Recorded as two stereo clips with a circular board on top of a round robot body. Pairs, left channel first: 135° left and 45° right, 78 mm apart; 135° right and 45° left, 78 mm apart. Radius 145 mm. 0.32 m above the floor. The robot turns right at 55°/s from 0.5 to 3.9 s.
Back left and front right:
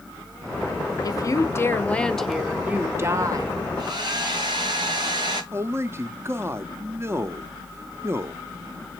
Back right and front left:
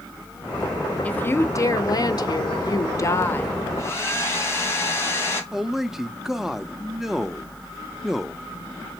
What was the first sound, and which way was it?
A woman speaking, 155° left.